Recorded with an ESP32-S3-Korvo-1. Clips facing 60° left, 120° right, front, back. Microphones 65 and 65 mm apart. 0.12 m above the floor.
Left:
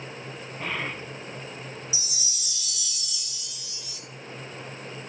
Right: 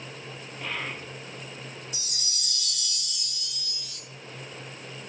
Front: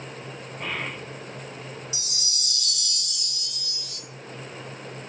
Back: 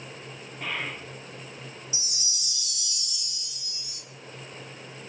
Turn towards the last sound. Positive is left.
turn(degrees=-25)